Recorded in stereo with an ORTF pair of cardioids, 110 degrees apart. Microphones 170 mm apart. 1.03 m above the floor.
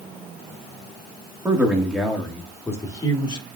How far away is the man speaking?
About 1.8 m.